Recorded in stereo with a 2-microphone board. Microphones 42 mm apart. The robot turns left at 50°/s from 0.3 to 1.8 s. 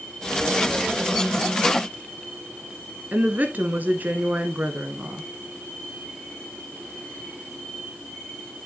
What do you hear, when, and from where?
3.1 s a woman speaking: 45° right (ahead or behind), 1.4 m